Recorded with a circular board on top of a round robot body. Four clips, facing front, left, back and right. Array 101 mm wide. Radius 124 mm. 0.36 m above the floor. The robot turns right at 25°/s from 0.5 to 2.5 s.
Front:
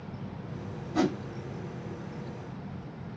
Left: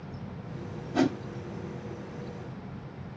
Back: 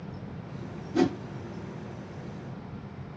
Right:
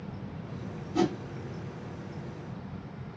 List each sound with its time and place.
0.9 s a whoosh: 85° left, 2.0 m; by 1.2 s 90° left, 2.0 m